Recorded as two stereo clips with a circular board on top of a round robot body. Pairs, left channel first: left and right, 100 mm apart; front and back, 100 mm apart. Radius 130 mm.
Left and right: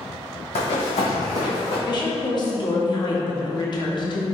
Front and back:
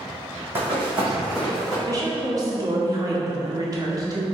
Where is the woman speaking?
130° left, 1.1 m.